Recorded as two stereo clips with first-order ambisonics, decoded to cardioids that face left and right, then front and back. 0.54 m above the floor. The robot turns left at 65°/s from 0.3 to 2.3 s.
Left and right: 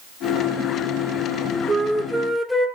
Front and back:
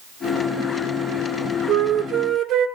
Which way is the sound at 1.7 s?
160° right.